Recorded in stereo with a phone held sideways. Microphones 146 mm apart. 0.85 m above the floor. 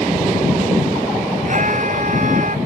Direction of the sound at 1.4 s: 55° right (ahead or behind).